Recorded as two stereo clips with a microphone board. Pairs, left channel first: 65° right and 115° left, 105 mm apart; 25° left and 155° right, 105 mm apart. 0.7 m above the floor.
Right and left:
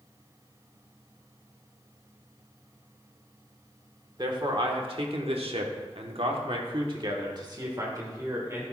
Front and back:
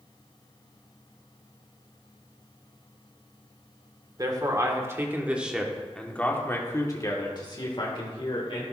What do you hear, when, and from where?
4.2 s a man speaking: 155° left, 1.7 m; by 8.6 s 50° left, 2.5 m